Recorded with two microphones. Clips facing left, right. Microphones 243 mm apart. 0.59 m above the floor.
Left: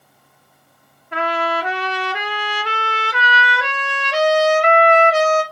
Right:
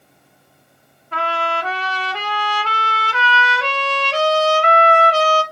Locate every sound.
1.1 s a trumpet: 15° left (ahead or behind), 1.4 m